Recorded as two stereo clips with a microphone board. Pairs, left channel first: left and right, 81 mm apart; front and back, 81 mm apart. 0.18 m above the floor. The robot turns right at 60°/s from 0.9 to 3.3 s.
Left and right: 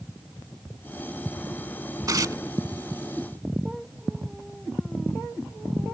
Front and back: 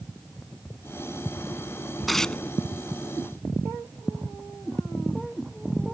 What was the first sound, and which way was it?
Tearing paper, 90° right.